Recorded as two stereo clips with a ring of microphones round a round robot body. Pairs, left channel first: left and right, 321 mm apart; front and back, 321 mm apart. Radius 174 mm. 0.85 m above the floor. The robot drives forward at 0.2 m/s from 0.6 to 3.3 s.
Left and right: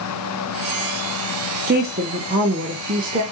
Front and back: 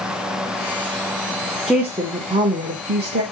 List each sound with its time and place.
1.7 s a woman speaking: 90° right, 0.5 m; by 3.2 s 145° right, 0.6 m